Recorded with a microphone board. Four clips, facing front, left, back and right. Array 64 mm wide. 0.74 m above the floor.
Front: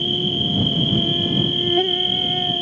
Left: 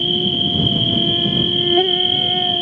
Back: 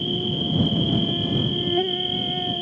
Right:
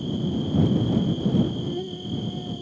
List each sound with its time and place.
0.0 s an insect: 75° left